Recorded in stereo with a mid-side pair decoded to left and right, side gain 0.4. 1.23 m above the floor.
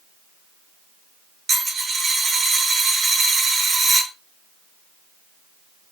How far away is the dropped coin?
About 2.0 m.